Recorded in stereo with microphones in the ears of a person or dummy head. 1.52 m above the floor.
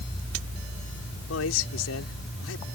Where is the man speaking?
80° left.